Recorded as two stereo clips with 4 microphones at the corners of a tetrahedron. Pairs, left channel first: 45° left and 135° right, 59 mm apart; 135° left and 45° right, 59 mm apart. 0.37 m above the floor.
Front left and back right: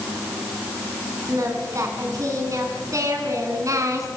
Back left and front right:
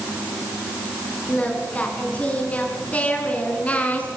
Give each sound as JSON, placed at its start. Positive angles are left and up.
{"t": 1.3, "sound": "singing", "azimuth_deg": -160, "distance_m": 4.5}